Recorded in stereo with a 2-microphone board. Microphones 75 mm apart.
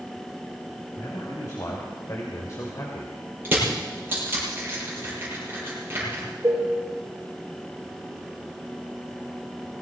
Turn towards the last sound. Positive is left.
turn(degrees=-35)  # may be behind; listen again after turning